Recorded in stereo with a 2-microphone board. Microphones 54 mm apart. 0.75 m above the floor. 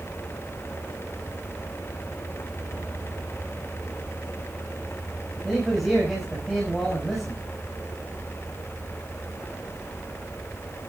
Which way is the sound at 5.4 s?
Centre (ahead or behind).